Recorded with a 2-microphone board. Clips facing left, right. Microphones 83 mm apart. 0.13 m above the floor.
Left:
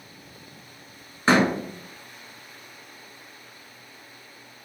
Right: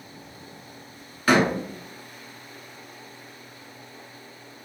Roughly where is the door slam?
Left.